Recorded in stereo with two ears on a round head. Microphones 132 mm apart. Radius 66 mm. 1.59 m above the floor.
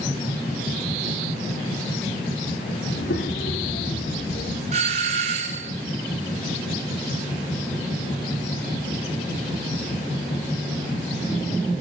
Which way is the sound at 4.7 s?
50° right (ahead or behind).